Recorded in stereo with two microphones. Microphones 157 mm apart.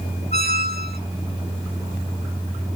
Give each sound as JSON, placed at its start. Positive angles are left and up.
{"t": 0.3, "sound": "a squeak", "side_deg": -80, "distance_m": 1.2}